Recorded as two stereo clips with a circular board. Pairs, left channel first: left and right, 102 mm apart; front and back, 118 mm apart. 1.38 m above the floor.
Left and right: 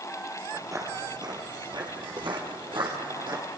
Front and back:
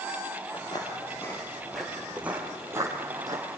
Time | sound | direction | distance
0.5 | footsteps | 35° right | 2 m